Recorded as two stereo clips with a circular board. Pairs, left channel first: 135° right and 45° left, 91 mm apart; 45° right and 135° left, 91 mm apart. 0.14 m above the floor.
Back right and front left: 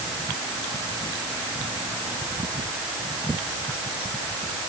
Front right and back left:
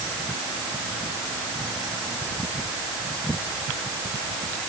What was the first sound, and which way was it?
Only background noise.